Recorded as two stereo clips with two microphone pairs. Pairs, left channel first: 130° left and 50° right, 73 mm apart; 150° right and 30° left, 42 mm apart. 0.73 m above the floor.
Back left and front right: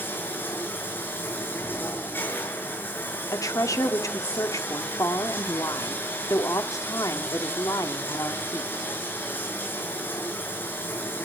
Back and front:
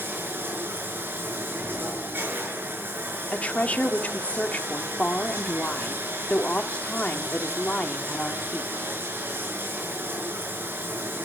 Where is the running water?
65° left, 5 m.